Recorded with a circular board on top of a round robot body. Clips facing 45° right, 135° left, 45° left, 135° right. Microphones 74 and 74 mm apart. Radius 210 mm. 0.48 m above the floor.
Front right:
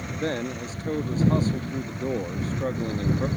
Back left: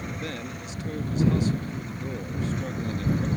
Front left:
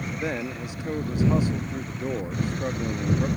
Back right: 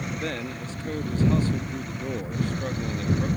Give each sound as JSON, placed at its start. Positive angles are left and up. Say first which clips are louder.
{"t": 0.2, "sound": "a man speaking", "louder": "front right 6 dB, front left 2 dB", "azimuth_deg": -25}